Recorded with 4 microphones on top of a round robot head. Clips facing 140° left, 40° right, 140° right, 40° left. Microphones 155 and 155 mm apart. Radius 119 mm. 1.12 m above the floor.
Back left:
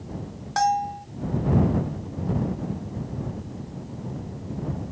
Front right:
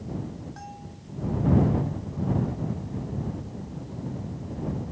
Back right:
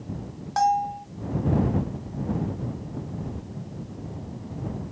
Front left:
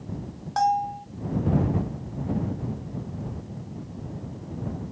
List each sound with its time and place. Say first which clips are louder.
0.6 s a bell: back left 19 dB, back right 1 dB; 130° left